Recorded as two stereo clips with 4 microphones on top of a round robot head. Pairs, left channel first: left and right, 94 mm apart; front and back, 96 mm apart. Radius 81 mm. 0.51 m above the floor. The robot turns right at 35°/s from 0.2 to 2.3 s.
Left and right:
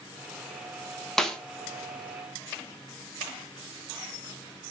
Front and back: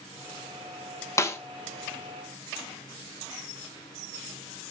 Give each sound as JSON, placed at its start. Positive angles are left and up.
{"t": 1.2, "sound": "a snare drum", "azimuth_deg": 10, "distance_m": 1.2}